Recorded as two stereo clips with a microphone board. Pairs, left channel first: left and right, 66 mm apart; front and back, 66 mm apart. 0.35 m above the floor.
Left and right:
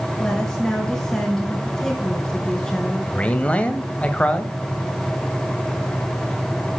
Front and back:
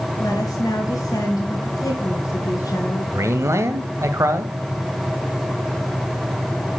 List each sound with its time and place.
0.2 s a woman speaking: 10° left, 5 m
3.1 s a man speaking: 155° left, 1.4 m